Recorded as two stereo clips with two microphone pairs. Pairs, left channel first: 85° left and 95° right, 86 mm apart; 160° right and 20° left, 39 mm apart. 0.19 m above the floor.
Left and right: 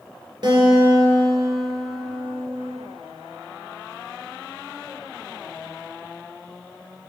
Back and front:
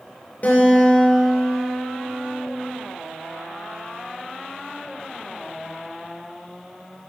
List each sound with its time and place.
0.4 s a guitar: 125° right, 2.5 m